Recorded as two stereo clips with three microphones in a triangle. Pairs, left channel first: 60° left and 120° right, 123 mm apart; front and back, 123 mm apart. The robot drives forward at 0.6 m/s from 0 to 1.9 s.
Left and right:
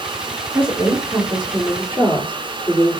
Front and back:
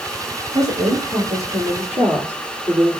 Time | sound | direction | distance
0.5 | a woman speaking | 160° left | 2 m